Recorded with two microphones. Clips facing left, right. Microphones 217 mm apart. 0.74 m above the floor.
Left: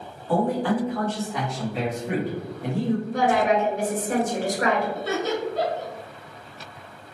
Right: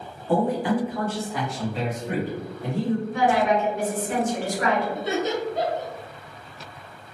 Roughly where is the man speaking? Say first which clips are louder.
Even; right.